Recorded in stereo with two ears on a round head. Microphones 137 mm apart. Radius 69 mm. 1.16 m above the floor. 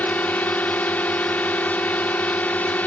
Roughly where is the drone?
Centre.